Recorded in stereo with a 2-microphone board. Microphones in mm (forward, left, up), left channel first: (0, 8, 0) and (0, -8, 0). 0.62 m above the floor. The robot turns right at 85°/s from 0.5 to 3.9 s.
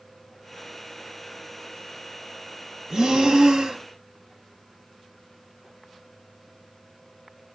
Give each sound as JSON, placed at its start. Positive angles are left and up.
{"t": 2.9, "sound": "breathing", "azimuth_deg": -135, "distance_m": 0.5}